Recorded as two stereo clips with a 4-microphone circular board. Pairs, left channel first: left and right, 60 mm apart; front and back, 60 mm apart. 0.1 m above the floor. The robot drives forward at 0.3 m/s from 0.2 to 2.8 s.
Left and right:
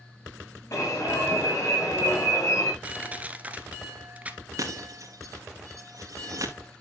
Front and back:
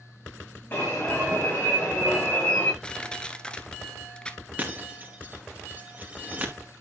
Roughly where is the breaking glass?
Behind right.